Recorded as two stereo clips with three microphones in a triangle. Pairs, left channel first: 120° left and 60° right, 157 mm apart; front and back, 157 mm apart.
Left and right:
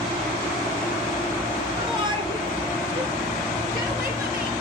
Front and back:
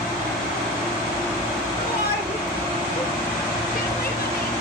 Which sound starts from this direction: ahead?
A shout, at 1.8 s.